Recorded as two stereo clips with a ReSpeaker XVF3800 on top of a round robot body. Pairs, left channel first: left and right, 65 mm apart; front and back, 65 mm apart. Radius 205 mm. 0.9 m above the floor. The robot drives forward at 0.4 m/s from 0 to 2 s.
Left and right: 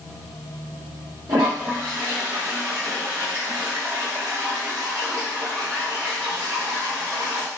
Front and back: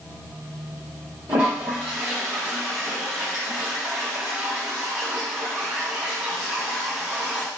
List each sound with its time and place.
1.3 s a toilet flushing: 130° right, 0.7 m; by 7.5 s 150° right, 0.9 m